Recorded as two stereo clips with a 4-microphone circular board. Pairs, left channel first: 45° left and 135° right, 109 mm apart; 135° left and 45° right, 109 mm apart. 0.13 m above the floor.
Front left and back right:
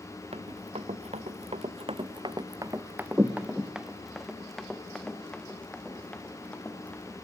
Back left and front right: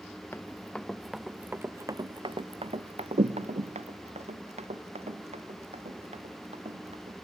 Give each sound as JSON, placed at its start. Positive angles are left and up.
{"t": 0.3, "sound": "running footsteps", "azimuth_deg": -155, "distance_m": 1.1}